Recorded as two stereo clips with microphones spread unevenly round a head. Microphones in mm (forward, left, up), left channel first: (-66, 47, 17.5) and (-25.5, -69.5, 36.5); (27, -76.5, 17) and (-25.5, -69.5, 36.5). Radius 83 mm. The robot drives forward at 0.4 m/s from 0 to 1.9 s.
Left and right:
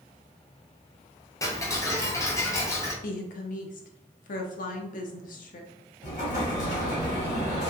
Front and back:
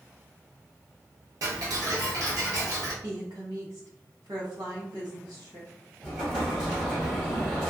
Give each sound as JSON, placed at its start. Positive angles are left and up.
{"t": 1.4, "sound": "ticking", "azimuth_deg": 175, "distance_m": 0.6}
{"t": 3.0, "sound": "a woman speaking", "azimuth_deg": 110, "distance_m": 0.7}
{"t": 6.0, "sound": "an explosion", "azimuth_deg": 75, "distance_m": 1.6}